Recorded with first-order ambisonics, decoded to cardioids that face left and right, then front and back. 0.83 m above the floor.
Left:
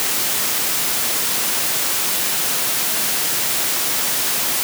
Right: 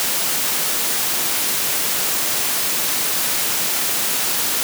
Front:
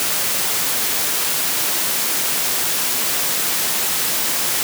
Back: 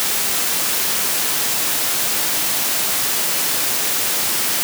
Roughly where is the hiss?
I don't hear a hiss.